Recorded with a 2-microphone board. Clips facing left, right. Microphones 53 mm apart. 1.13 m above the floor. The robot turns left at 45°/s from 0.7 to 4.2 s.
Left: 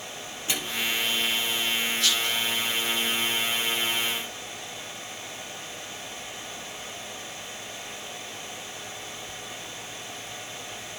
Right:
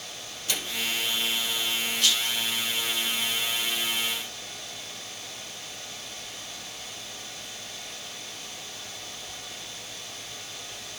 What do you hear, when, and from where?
0.5 s a microwave: 25° left (ahead or behind), 2.5 m; by 0.8 s 20° left (ahead or behind), 2.5 m
2.0 s a rattle: 55° right (ahead or behind), 7.5 m; by 2.4 s 75° right (ahead or behind), 7.5 m